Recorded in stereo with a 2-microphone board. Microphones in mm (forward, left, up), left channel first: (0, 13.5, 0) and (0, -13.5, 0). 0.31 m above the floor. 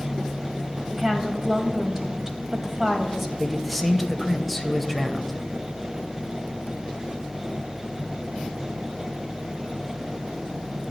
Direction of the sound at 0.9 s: 15° right (ahead or behind).